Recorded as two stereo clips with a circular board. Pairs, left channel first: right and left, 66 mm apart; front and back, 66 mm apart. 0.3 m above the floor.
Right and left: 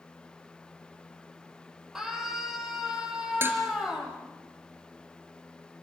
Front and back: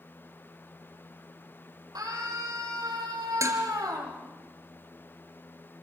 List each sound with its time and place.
1.9 s a scream: 175° left, 9.5 m
3.4 s dishes clattering: 145° left, 3 m